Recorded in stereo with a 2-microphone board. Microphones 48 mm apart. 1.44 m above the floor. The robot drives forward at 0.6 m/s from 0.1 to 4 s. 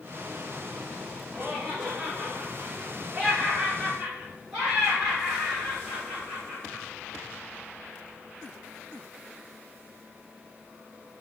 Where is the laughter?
35° right (ahead or behind), 3 m; by 6.8 s 20° right (ahead or behind), 4 m.